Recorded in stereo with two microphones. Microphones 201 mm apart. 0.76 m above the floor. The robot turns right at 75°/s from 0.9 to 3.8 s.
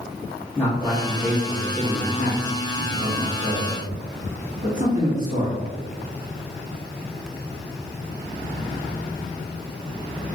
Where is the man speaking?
10° left, 1.2 m; by 5.6 s 130° right, 1.2 m.